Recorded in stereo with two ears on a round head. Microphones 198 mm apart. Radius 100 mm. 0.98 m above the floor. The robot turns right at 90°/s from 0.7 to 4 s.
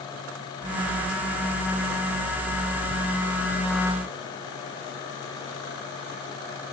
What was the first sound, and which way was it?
Only background noise.